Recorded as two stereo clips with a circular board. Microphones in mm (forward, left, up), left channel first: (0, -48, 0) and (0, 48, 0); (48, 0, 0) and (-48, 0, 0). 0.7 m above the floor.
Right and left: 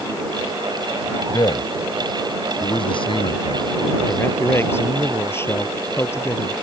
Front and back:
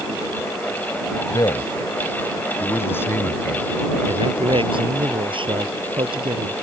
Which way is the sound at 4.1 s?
155° right.